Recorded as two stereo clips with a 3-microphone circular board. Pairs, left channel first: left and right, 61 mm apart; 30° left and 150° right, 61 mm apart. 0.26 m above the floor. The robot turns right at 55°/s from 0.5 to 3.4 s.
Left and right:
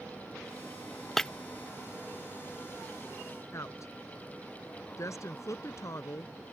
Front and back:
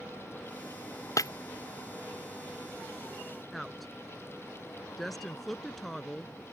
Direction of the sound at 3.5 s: 120° left.